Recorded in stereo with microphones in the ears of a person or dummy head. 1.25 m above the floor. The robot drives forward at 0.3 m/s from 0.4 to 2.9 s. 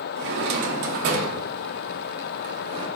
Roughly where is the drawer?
Right.